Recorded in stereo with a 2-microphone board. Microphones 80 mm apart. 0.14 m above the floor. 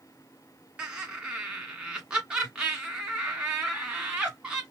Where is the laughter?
15° right (ahead or behind), 1.1 m.